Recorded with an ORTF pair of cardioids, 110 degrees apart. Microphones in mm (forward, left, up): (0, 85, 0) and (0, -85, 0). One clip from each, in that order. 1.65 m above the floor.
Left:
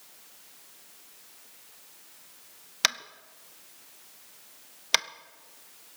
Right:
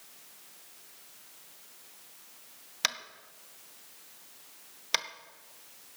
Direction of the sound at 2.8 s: 15° left.